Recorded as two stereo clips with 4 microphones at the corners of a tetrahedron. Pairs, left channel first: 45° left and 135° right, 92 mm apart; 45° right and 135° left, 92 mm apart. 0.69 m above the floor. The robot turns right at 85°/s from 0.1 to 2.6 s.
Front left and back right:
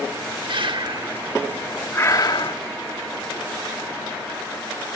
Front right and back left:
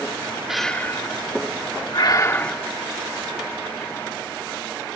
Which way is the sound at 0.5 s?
140° right.